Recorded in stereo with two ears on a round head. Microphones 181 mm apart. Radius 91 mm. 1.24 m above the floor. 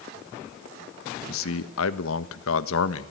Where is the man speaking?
75° left (ahead or behind), 1.6 m.